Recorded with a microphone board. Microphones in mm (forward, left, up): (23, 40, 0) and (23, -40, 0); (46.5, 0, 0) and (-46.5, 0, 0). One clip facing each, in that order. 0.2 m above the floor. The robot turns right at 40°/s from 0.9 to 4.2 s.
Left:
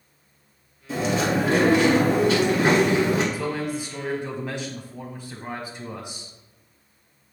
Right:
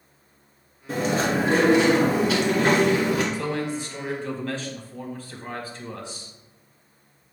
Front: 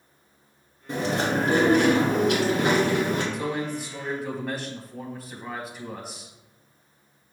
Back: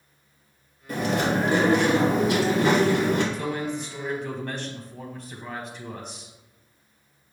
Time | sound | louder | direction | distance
0.9 | chewing | even, back 1 dB | 55° right | 2 m
3.3 | a man speaking | even, even | 40° left | 1.0 m